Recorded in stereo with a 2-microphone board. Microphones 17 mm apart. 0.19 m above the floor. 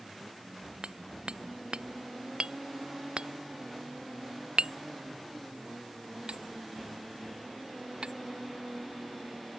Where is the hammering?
85° right.